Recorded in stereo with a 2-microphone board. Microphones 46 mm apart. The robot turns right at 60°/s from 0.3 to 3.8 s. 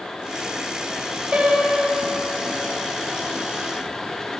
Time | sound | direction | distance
1.3 | a piano | 30° right | 3.5 m